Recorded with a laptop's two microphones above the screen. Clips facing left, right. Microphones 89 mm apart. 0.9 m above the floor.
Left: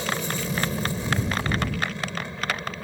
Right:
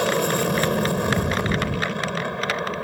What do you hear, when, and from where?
0.0 s an aircraft: 55° right (ahead or behind)